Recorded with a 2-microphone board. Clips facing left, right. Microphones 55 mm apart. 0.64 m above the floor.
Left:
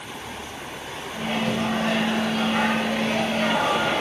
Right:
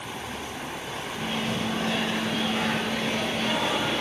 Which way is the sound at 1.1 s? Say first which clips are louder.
Left 5 dB; 65° left (ahead or behind).